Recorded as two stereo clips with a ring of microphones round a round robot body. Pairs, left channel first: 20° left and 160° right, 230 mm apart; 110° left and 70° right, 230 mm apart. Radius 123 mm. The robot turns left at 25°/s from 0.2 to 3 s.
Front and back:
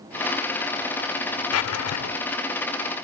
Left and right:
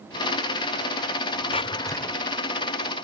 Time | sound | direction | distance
1.5 | a drawer | 45° left | ?